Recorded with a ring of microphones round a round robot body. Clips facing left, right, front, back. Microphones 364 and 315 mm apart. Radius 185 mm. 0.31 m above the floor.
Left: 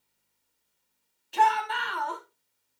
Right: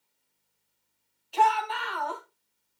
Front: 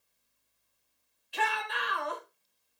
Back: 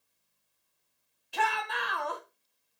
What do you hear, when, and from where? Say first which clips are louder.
1.3 s a shout: even, back 1 dB; 150° left, 2.5 m